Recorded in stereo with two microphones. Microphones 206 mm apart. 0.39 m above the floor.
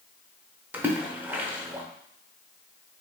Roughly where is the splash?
Centre.